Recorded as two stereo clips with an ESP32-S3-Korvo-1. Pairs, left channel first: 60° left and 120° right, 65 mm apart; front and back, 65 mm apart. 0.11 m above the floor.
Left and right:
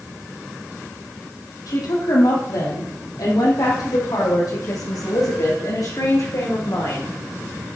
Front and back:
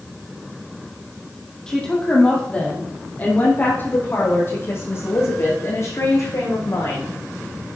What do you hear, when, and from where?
1.7 s a woman speaking: 80° left, 4 m; by 7.1 s 35° left, 7.5 m